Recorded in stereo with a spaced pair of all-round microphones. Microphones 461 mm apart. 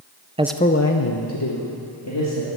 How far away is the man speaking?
About 0.6 m.